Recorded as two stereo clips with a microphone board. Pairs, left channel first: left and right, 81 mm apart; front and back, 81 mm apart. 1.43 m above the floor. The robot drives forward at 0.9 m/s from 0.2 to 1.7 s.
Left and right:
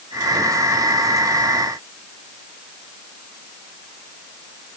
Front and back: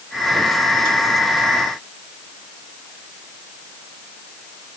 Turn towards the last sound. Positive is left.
No sound to turn to.